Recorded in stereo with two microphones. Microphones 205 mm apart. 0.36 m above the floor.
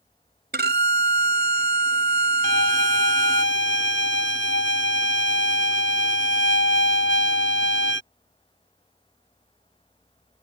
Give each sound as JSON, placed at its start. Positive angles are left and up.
{"t": 0.5, "sound": "a violin", "side_deg": -55}
{"t": 2.4, "sound": "a violin", "side_deg": 75}